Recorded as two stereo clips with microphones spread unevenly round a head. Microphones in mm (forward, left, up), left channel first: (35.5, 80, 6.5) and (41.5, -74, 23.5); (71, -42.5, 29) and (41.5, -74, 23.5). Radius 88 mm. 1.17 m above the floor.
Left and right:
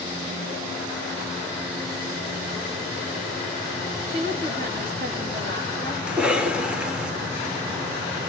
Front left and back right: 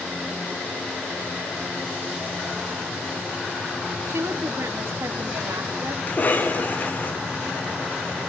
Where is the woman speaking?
130° right, 2.5 m.